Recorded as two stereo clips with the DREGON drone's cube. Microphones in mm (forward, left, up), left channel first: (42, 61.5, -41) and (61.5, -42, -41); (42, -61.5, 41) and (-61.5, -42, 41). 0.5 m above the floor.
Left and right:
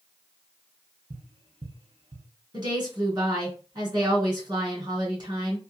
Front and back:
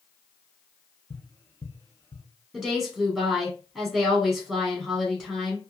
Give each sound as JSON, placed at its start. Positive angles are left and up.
{"t": 1.1, "sound": "tapping", "azimuth_deg": -70, "distance_m": 0.6}
{"t": 2.5, "sound": "a woman speaking", "azimuth_deg": -105, "distance_m": 1.7}